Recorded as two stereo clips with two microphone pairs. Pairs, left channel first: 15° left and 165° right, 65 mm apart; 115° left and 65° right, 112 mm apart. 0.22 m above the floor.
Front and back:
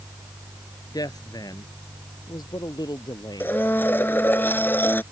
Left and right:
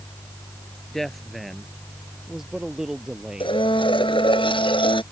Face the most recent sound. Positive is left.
turn(degrees=75)